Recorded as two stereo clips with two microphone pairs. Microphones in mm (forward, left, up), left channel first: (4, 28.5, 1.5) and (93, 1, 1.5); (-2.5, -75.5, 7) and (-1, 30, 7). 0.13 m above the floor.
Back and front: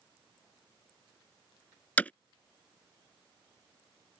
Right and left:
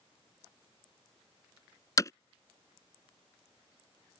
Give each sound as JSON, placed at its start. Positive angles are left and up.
{"t": 2.0, "sound": "hammering", "azimuth_deg": -130}